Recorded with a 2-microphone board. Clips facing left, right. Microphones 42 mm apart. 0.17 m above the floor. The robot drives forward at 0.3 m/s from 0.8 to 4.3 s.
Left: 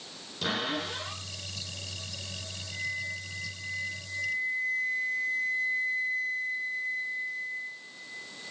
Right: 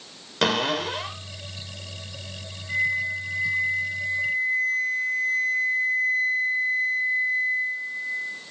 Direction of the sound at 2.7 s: 80° right.